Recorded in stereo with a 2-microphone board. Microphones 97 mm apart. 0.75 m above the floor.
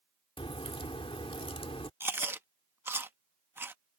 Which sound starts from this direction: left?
A crack, at 0.4 s.